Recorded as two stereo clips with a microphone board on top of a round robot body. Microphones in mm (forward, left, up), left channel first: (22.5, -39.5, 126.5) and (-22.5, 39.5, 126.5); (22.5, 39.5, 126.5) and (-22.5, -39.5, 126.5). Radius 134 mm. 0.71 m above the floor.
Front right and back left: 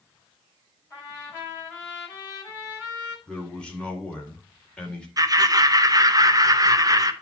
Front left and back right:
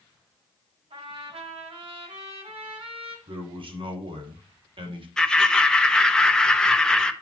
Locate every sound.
0.9 s a trumpet: 135° right, 6 m
3.3 s a man speaking: 140° right, 2.5 m
5.2 s laughter: 140° left, 1.1 m